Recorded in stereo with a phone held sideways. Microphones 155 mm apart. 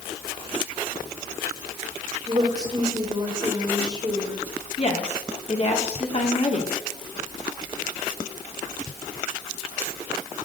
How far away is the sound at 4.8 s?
About 3 m.